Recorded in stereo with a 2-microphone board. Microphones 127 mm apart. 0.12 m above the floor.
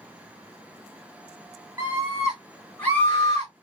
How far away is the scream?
About 1.5 m.